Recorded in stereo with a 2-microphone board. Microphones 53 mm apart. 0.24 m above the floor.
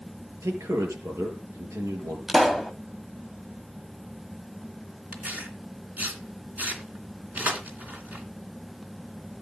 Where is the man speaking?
75° right (ahead or behind), 5 m.